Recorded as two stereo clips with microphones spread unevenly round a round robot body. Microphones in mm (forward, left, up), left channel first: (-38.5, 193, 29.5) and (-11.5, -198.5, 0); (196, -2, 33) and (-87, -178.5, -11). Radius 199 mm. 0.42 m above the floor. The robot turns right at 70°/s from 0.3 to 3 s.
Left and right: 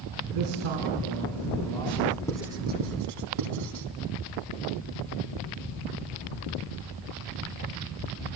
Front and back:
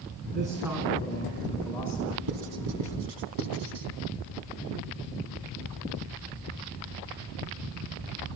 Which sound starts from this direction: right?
A man speaking, at 0.2 s.